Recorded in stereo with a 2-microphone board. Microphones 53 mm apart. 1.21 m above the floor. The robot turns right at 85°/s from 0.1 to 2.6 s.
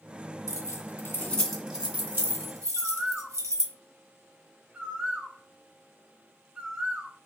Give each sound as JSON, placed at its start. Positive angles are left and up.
{"t": 0.5, "sound": "keys jangling", "side_deg": 80, "distance_m": 1.2}
{"t": 2.8, "sound": "a bird", "side_deg": -20, "distance_m": 0.6}